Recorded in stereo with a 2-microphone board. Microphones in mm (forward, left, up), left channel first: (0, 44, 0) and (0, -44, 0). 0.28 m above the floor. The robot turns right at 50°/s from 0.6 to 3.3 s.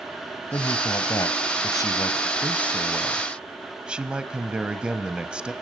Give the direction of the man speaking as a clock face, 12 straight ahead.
10 o'clock.